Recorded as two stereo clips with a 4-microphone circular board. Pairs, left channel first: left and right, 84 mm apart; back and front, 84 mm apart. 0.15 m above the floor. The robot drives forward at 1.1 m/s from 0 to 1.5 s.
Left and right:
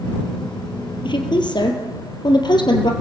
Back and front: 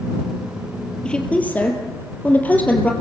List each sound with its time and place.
1.1 s a woman speaking: 100° left, 3 m; by 2.9 s 110° left, 3 m